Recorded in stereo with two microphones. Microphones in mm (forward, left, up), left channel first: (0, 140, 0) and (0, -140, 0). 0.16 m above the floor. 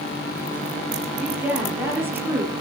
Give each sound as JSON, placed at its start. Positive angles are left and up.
{"t": 1.2, "sound": "a woman speaking", "side_deg": -5, "distance_m": 4.0}